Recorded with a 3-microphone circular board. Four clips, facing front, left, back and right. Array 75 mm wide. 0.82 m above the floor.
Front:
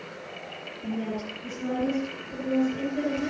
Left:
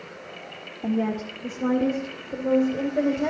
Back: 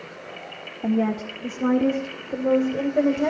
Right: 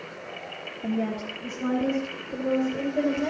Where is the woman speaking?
165° left, 1.7 m; by 3.3 s 170° left, 3 m.